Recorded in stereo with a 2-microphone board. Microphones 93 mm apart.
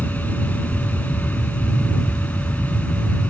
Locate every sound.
0.0 s an aircraft: 20° left (ahead or behind)